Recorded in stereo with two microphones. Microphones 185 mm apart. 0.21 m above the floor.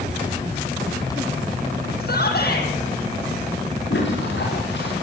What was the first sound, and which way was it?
A shout, 55° left (ahead or behind).